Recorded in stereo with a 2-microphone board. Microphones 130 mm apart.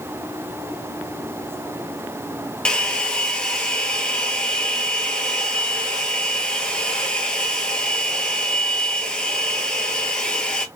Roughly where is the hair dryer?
Centre.